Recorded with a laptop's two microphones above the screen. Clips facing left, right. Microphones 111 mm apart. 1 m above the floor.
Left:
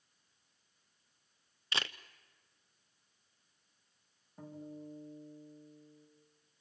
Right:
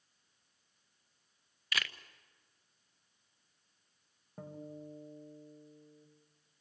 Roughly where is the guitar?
Right.